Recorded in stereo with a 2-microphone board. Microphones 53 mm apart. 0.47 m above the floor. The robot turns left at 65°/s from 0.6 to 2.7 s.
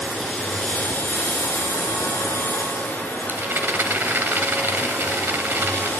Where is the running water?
170° left, 4.5 m; by 6.0 s 35° left, 4.5 m.